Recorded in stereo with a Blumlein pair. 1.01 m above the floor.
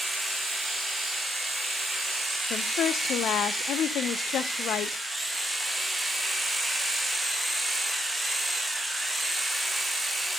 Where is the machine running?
5° right, 0.7 m.